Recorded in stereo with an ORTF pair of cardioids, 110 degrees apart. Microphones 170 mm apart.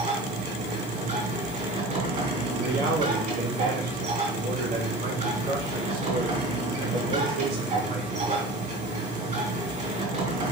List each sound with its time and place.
0.0 s a machine running: 50° right, 3.5 m
2.5 s a man speaking: 70° right, 2.5 m